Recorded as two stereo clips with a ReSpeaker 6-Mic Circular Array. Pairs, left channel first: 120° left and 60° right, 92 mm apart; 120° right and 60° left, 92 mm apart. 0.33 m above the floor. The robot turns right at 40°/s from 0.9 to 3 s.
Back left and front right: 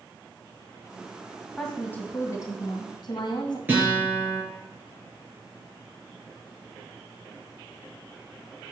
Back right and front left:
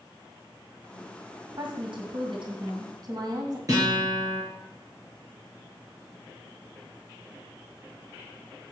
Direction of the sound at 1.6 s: 30° left.